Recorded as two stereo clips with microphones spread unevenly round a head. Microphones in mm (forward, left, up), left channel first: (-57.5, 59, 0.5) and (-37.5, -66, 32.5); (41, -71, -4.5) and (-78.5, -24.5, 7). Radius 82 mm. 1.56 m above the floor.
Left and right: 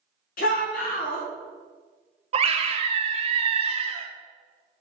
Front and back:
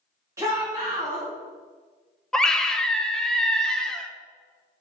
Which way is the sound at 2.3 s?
110° right.